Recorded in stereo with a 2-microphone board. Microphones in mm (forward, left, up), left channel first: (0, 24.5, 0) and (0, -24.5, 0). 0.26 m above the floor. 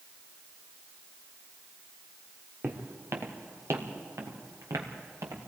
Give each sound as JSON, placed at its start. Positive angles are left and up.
{"t": 2.6, "sound": "footsteps", "side_deg": -45, "distance_m": 2.5}